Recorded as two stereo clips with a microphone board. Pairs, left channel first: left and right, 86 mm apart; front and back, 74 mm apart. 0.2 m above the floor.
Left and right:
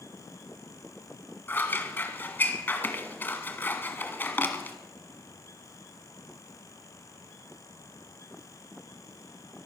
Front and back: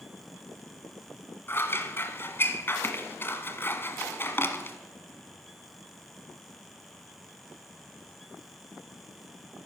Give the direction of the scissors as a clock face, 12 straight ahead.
11 o'clock.